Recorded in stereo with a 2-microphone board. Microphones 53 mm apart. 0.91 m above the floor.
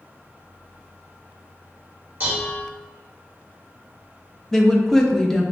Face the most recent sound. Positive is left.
turn(degrees=5)  # may be behind; listen again after turning